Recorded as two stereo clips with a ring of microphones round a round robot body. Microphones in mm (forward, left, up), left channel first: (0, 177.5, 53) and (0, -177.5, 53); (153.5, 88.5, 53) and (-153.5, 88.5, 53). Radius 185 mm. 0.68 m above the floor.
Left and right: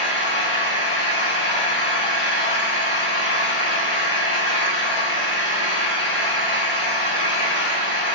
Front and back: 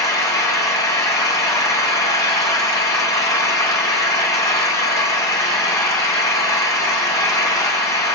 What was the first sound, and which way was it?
An engine running, 80° left.